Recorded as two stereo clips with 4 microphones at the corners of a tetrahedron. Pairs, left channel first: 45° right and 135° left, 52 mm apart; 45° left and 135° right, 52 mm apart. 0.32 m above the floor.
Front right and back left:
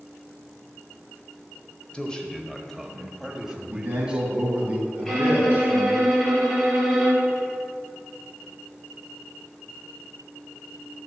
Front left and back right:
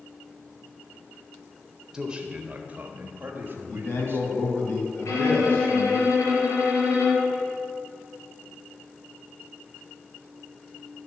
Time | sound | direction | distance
1.9 | a man speaking | 80° right | 0.9 m
3.7 | a man speaking | 80° left | 2.5 m
5.0 | a violin | 40° left | 2.5 m